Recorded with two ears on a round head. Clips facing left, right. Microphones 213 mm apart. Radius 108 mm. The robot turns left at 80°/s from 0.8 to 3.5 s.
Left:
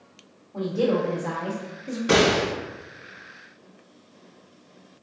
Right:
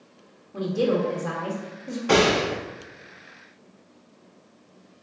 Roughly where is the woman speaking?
Centre.